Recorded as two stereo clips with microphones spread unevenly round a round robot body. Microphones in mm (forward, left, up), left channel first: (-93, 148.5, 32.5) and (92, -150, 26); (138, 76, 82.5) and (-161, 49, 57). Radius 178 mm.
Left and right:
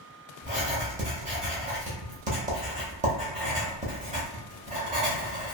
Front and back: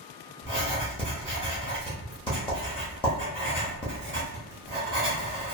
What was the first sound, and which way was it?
Writing, 25° right.